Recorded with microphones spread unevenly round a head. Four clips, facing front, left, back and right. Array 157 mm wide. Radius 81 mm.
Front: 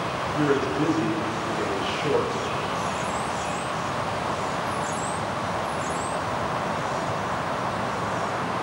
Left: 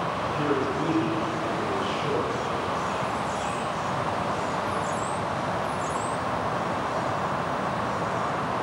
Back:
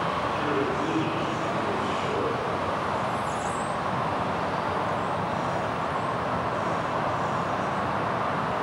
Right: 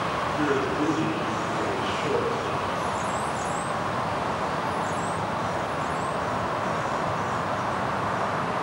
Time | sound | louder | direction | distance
0.3 | a man speaking | right 1 dB, front 3 dB | 10° right | 3 m